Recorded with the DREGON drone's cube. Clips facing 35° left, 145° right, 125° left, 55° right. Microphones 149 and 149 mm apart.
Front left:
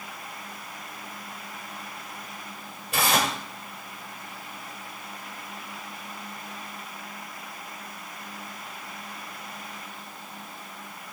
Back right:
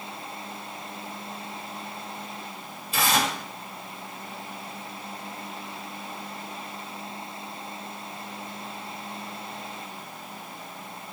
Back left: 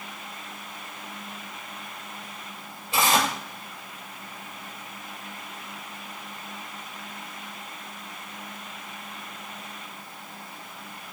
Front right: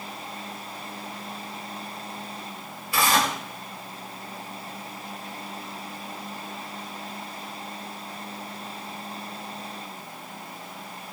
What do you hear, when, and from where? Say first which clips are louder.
2.9 s tearing paper: even, even; 60° left, 2 m